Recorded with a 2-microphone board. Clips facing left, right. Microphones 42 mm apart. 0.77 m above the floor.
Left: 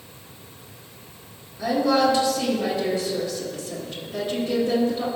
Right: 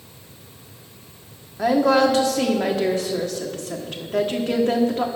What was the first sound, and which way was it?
A woman speaking, 65° right (ahead or behind).